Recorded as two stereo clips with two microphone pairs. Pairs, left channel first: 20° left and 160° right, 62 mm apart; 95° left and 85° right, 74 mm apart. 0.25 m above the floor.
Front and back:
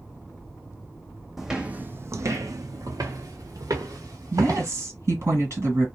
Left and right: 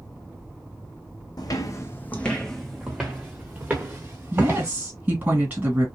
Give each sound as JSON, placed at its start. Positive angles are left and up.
{"t": 1.4, "sound": "footsteps", "azimuth_deg": 115, "distance_m": 0.5}
{"t": 4.3, "sound": "a woman speaking", "azimuth_deg": -140, "distance_m": 2.0}